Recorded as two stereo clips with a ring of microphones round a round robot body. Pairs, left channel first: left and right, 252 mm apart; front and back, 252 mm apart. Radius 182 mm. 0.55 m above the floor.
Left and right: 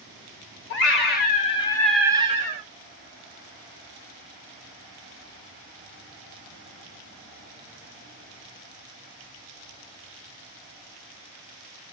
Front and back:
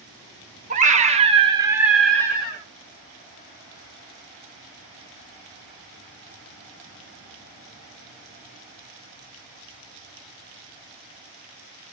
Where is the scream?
125° left, 1.0 m; by 2.6 s 60° right, 0.7 m.